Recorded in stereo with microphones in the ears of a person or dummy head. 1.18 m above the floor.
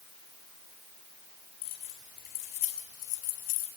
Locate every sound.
1.6 s keys jangling: 35° left (ahead or behind), 5.5 m; by 3.7 s 45° left (ahead or behind), 5 m